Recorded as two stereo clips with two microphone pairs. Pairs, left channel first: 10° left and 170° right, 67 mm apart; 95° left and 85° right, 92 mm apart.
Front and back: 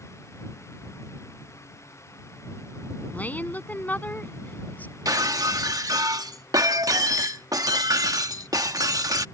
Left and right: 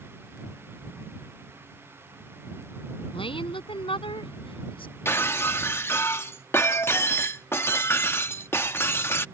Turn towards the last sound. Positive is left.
turn(degrees=160)